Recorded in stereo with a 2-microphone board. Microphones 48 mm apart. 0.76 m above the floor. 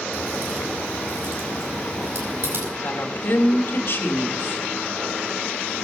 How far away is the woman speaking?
About 2.0 m.